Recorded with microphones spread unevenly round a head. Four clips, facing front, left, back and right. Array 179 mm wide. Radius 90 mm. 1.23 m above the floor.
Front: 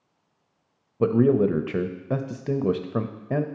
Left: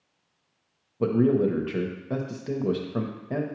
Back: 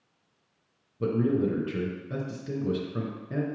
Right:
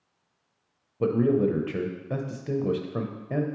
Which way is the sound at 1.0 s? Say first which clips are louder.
Left 1 dB, front 6 dB; 5° left.